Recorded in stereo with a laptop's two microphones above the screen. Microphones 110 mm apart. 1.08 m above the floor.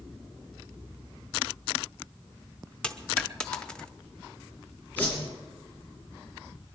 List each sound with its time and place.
2.8 s a dropped coin: 10° left (ahead or behind), 0.7 m
5.0 s a whoosh: 15° left (ahead or behind), 5.5 m